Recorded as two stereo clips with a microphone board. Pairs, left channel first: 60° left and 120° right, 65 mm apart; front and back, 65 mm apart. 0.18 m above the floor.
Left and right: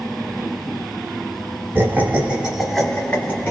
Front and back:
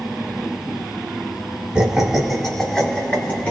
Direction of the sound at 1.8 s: 110° right.